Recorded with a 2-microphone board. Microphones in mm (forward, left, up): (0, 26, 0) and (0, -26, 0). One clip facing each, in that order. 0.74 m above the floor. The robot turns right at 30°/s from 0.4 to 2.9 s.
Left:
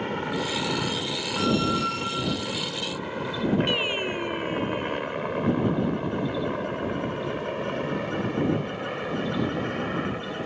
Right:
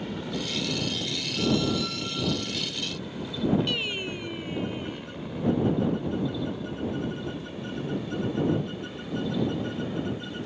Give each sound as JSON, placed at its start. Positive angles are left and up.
{"t": 0.0, "sound": "a helicopter", "side_deg": 45}
{"t": 1.4, "sound": "a squeak", "azimuth_deg": 120}
{"t": 3.7, "sound": "singing", "side_deg": 25}